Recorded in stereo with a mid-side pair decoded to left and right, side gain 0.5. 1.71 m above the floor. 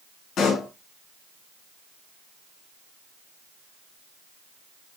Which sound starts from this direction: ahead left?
A pop, at 0.4 s.